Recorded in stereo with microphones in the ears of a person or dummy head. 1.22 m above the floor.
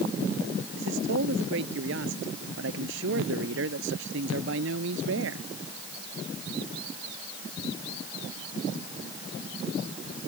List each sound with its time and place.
0.8 s a man speaking: 60° right (ahead or behind); by 5.5 s 65° right (ahead or behind)